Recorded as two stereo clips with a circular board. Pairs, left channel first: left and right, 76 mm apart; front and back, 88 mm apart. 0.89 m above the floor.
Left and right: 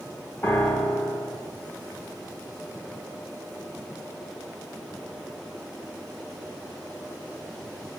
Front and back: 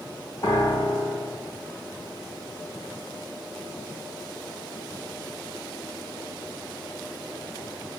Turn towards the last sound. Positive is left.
turn(degrees=35)